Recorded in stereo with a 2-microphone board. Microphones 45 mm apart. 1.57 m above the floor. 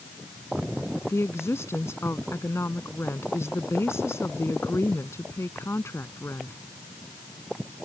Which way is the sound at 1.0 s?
80° left.